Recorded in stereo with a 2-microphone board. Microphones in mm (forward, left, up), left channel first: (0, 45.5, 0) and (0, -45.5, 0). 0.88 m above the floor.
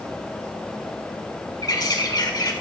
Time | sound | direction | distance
1.6 | a bird | 45° left (ahead or behind) | 1.8 m